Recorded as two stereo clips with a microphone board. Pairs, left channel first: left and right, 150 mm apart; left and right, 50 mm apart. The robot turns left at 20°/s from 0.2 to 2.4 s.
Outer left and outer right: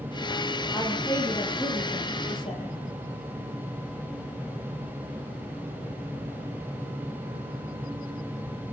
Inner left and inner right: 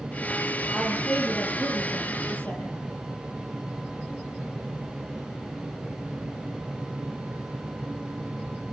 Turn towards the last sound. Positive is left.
turn(degrees=140)